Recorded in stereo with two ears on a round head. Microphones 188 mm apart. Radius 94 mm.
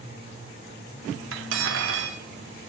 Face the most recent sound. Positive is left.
turn(degrees=-60)  # may be behind; listen again after turning